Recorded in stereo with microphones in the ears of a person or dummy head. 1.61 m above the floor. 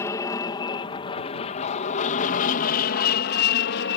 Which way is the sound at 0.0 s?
20° left (ahead or behind).